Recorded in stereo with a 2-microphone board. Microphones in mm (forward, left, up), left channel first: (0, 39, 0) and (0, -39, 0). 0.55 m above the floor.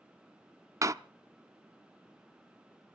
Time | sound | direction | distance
0.8 | a door slam | 45° right (ahead or behind) | 0.5 m